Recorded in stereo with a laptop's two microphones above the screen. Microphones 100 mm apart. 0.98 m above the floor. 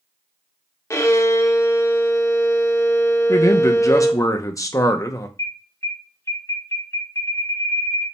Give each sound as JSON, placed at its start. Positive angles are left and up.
{"t": 0.9, "sound": "a violin", "side_deg": 30, "distance_m": 0.6}
{"t": 3.3, "sound": "a man speaking", "side_deg": 35, "distance_m": 0.6}
{"t": 5.4, "sound": "an alarm", "side_deg": 35, "distance_m": 1.6}